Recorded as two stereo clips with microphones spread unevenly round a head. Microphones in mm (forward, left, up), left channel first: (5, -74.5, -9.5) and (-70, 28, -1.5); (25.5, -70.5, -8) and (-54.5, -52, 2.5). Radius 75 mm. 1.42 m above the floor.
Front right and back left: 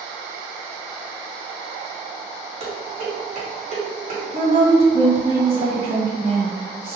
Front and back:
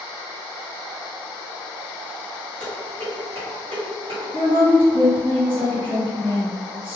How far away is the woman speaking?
About 1.9 m.